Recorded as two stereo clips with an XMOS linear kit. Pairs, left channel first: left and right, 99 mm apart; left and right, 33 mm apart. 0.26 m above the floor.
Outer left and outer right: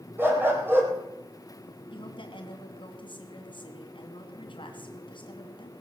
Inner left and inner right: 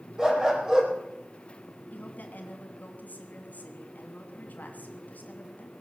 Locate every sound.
0.2 s a dog barking: 20° right (ahead or behind), 3.5 m
1.9 s a woman speaking: 55° left (ahead or behind), 3 m